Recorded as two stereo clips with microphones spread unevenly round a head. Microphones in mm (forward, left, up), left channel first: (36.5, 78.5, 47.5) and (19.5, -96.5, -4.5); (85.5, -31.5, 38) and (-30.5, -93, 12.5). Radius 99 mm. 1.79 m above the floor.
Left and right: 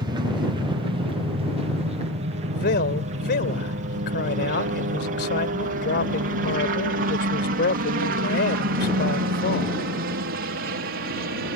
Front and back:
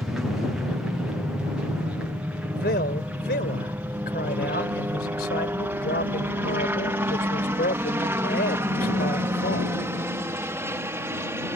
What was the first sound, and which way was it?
A helicopter, 75° right.